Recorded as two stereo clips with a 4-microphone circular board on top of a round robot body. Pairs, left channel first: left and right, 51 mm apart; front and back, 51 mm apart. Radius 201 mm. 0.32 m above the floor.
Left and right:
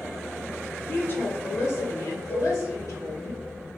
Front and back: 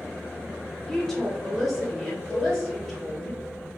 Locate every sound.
0.9 s a woman speaking: 75° left, 1.1 m; by 3.3 s 95° left, 2.5 m
2.3 s a cowbell: 55° left, 1.4 m